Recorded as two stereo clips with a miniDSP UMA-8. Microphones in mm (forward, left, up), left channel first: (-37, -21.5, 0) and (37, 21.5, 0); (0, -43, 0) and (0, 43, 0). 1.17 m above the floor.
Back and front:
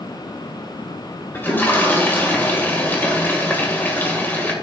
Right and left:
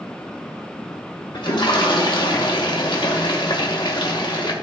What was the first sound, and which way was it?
A toilet flushing, 85° right.